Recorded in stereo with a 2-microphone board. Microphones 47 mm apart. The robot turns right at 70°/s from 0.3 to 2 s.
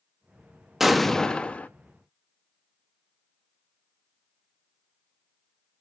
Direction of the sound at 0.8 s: 10° right.